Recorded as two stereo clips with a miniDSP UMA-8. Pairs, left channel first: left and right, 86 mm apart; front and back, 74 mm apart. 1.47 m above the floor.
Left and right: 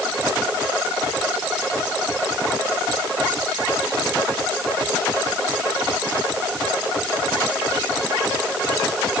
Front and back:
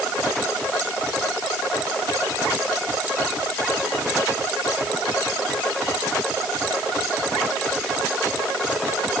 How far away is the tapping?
I don't hear tapping.